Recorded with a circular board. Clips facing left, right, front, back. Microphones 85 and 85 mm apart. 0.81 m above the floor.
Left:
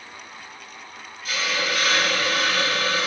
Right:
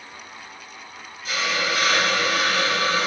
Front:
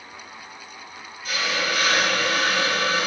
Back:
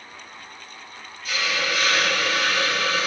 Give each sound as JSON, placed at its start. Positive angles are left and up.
{"t": 1.2, "sound": "a hiss", "azimuth_deg": -40, "distance_m": 1.5}